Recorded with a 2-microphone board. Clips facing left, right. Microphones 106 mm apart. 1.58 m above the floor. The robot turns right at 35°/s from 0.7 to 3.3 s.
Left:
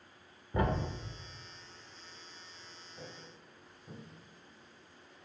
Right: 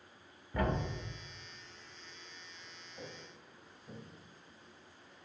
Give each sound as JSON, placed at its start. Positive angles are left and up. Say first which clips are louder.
{"t": 0.5, "sound": "a thud", "louder": "left 2 dB", "side_deg": 25, "distance_m": 0.9}
{"t": 3.0, "sound": "footsteps", "louder": "right 1 dB", "side_deg": 5, "distance_m": 2.5}